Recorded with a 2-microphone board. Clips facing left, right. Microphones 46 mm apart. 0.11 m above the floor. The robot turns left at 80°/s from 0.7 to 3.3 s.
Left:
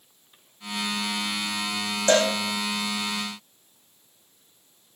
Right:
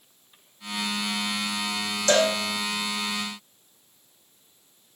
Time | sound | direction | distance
2.1 | a cowbell | 30° left (ahead or behind) | 3 m